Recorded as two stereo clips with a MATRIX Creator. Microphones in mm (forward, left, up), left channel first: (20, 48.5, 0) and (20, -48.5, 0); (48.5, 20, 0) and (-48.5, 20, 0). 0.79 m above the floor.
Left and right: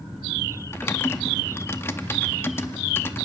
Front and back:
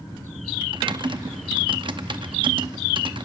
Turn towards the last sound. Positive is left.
turn(degrees=150)